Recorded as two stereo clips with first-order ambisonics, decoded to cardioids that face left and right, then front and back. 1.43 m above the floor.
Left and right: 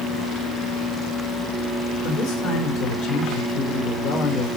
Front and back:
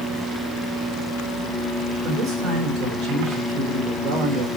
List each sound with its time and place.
2.0 s a man speaking: 135° left, 4.5 m